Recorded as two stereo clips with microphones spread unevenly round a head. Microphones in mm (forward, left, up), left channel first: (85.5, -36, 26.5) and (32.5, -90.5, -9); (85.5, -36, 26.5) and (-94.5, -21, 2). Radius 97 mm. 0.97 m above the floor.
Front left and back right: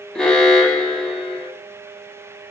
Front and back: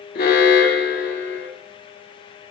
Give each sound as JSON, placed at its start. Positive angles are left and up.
{"t": 0.1, "sound": "an alarm", "azimuth_deg": -45, "distance_m": 2.0}